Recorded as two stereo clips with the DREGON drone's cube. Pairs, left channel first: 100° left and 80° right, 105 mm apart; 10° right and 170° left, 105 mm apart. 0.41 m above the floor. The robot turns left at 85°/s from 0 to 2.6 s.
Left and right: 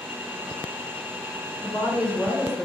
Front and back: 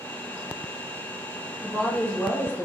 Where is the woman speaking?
80° left, 0.9 m; by 2.7 s straight ahead, 0.9 m.